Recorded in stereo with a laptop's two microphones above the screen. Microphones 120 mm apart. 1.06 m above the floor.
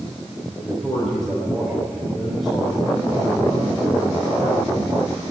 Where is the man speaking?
Centre (ahead or behind), 3.5 m.